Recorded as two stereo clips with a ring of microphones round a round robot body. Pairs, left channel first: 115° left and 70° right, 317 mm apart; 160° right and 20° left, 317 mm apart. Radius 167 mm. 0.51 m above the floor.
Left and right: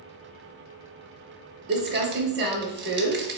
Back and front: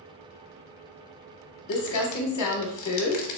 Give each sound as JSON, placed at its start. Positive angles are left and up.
{"t": 1.7, "sound": "crumpling", "azimuth_deg": -125, "distance_m": 0.6}